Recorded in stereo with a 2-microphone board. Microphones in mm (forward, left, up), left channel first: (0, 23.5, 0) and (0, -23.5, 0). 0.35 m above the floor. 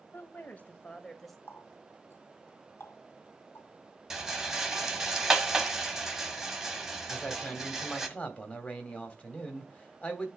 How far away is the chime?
I don't hear a chime.